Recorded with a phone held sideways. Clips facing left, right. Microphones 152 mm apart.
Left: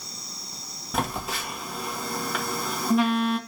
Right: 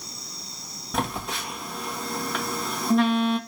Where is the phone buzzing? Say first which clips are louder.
Even; centre (ahead or behind), 1.4 m.